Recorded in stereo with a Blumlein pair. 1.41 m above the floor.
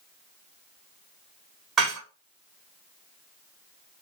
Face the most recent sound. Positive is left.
turn(degrees=-25)